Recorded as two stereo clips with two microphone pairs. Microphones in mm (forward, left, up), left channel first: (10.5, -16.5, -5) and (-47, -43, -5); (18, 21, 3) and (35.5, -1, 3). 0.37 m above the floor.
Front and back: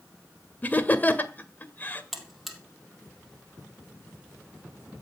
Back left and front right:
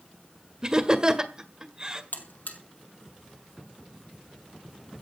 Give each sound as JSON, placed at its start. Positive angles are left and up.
{"t": 0.6, "sound": "laughter", "azimuth_deg": -10, "distance_m": 1.6}
{"t": 2.1, "sound": "a buzzer", "azimuth_deg": 115, "distance_m": 2.5}